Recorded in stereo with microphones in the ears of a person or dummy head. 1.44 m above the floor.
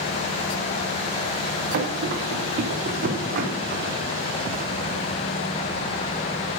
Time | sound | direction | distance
1.7 | running footsteps | 65° right (ahead or behind) | 3.5 m